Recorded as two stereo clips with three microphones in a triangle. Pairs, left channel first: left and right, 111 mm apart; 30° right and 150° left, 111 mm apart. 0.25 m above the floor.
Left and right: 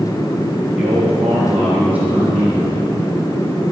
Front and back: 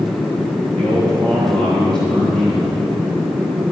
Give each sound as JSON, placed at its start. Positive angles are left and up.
{"t": 0.8, "sound": "a man speaking", "azimuth_deg": -165, "distance_m": 5.5}